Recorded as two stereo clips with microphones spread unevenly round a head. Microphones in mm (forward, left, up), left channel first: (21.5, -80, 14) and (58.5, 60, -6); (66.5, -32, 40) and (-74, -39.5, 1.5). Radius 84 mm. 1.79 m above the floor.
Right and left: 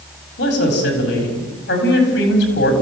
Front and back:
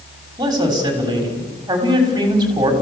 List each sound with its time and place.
0.4 s a man speaking: 110° right, 6.5 m